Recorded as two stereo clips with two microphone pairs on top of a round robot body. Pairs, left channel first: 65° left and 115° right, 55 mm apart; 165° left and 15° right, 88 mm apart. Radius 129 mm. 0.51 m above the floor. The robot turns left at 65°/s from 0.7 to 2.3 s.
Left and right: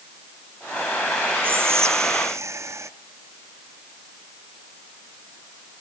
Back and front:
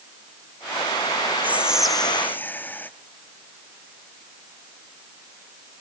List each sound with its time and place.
1.4 s whispering: 65° right, 1.0 m; by 2.9 s 120° right, 1.0 m